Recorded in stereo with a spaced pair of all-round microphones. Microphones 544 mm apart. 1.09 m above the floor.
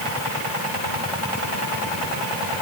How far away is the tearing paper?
No tearing paper in this recording.